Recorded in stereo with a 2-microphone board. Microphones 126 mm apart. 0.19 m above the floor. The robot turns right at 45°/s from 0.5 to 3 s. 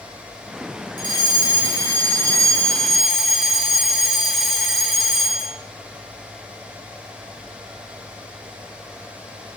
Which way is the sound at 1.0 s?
90° left.